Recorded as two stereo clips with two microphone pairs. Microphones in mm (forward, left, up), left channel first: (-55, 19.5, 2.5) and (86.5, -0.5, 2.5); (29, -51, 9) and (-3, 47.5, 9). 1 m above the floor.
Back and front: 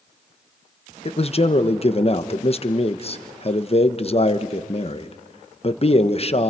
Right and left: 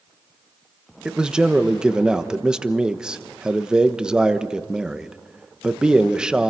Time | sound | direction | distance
1.1 | a man speaking | 175° right | 1.0 m